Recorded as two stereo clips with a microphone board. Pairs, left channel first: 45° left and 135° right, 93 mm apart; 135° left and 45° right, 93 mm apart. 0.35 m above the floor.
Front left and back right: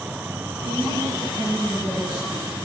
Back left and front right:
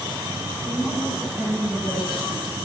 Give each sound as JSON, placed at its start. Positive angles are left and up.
{"t": 0.6, "sound": "a woman speaking", "azimuth_deg": 35, "distance_m": 7.5}